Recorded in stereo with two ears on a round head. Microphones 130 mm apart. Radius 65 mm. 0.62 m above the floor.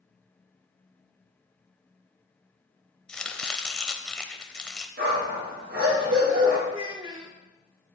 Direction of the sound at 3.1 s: 5° left (ahead or behind).